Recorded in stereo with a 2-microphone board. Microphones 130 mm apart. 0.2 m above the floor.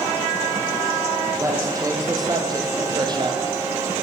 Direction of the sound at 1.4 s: 25° right (ahead or behind).